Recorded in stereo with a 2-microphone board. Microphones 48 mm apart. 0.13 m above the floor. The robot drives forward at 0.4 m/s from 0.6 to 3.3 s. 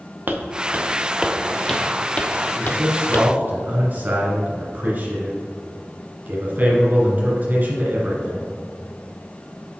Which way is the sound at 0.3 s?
45° right (ahead or behind).